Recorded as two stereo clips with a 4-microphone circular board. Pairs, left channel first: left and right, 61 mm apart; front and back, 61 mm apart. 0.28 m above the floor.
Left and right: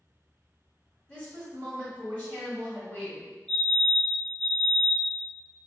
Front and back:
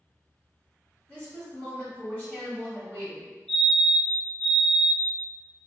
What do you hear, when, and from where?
1.1 s a woman speaking: 40° left, 1.6 m
3.5 s a fire alarm: 45° left, 1.9 m